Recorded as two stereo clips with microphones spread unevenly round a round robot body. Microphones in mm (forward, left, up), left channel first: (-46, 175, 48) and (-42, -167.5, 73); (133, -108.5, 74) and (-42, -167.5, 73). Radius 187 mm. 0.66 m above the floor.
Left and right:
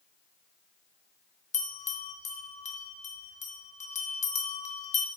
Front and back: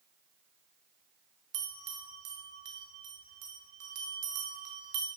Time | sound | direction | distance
1.5 | a bell | 160° left | 2.5 m